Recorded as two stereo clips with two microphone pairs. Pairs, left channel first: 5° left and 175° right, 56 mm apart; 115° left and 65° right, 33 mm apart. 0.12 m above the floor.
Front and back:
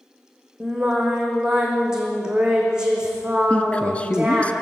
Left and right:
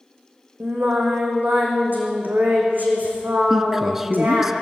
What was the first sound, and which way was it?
Singing, 100° right.